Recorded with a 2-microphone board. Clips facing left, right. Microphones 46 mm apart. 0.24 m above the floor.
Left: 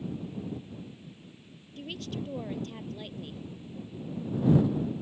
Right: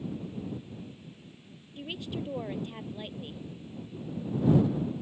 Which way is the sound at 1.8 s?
15° right (ahead or behind).